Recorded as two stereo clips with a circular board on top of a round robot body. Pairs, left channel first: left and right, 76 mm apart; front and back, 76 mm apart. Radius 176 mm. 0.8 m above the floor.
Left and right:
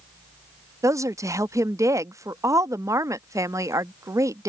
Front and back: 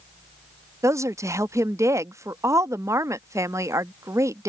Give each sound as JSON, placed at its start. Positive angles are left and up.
{"t": 0.8, "sound": "a woman speaking", "azimuth_deg": -135}